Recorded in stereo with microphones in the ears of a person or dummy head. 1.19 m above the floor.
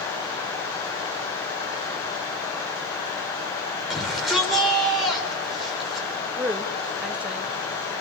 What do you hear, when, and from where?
3.9 s a shout: centre (ahead or behind), 5 m
6.3 s a woman speaking: 5° right (ahead or behind), 0.9 m